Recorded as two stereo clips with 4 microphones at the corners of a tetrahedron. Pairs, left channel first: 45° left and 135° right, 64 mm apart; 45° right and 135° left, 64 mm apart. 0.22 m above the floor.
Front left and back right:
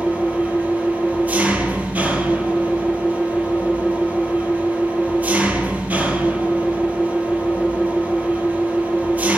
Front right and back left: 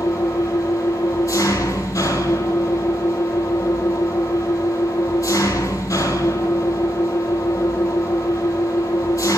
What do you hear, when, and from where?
0.0 s an engine running: 70° right, 2.5 m